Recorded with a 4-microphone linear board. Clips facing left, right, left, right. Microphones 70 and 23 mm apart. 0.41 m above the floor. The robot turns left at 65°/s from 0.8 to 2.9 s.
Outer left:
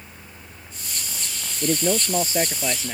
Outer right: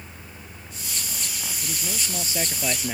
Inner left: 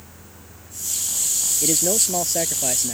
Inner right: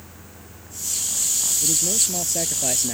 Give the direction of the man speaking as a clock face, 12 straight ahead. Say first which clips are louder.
Outer left 14 dB, inner left 4 dB; 9 o'clock.